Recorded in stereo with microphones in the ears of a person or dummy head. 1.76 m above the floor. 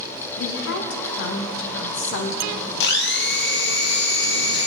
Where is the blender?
55° left (ahead or behind), 0.7 m.